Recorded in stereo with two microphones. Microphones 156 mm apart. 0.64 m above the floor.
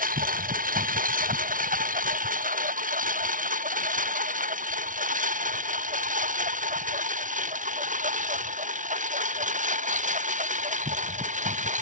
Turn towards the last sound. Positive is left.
turn(degrees=-50)  # may be behind; listen again after turning